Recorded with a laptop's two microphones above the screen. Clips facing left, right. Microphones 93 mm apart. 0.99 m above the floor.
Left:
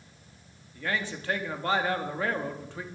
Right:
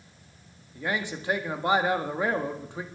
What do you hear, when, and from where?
0.8 s a man speaking: 20° right (ahead or behind), 1.5 m